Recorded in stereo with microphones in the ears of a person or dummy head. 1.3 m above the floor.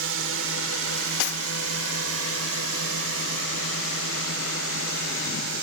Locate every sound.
0.0 s a drone: 75° right (ahead or behind); by 5.6 s 65° right (ahead or behind)
1.2 s cutlery clinking: 60° left (ahead or behind)